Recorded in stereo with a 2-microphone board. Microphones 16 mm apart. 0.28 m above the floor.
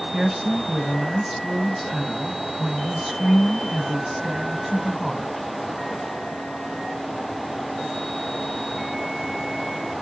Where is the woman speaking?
15° right (ahead or behind), 2.0 m.